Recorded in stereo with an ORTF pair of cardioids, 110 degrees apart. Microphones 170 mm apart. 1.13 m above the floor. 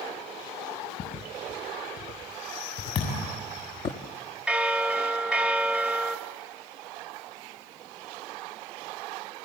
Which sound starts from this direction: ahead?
A bell, at 4.5 s.